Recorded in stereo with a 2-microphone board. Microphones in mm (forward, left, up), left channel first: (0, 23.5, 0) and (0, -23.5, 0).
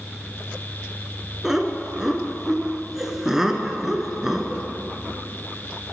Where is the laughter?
10° right (ahead or behind), 1.2 m.